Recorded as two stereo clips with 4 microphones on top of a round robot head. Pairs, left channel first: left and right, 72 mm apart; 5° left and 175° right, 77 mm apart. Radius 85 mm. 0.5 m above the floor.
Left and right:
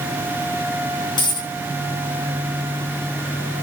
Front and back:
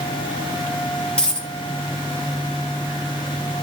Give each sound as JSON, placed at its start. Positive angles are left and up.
{"t": 1.2, "sound": "a dropped coin", "azimuth_deg": 80, "distance_m": 2.5}